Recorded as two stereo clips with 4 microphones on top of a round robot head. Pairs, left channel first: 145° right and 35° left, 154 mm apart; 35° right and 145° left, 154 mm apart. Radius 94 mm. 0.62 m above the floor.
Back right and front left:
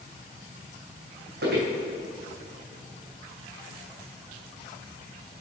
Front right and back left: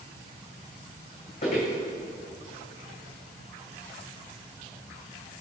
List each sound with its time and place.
1.4 s footsteps: 10° left, 2.5 m